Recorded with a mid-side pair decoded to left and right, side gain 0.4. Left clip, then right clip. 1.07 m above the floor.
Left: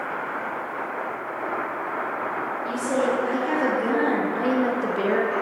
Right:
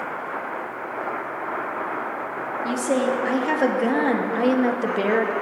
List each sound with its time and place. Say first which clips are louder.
2.6 s a woman speaking: right 2 dB; 60° right, 2.5 m; by 5.3 s 35° right, 1.6 m